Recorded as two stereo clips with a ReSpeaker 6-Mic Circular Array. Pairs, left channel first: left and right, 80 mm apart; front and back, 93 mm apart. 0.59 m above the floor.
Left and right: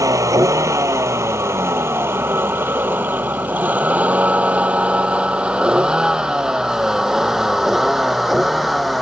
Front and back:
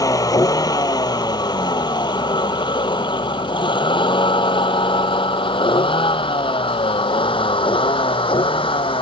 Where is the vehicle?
45° right; by 9.0 s straight ahead.